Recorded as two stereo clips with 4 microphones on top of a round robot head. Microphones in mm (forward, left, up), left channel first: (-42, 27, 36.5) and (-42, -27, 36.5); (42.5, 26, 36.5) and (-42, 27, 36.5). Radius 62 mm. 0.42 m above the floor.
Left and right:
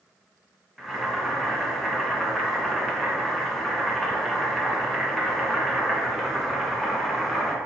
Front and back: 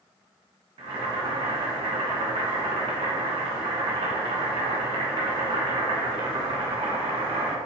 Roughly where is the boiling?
Behind.